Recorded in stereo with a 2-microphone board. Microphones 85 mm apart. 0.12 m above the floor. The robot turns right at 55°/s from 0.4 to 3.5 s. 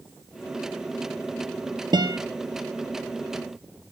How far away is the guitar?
About 1.0 m.